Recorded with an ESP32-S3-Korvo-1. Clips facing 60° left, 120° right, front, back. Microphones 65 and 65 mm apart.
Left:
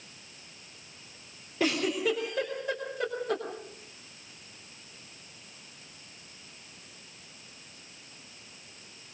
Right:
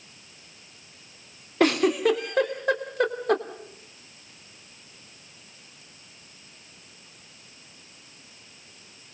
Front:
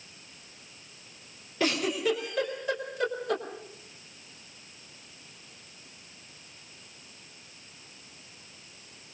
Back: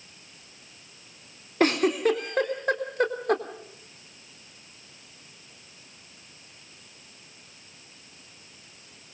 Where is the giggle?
140° right, 3 m.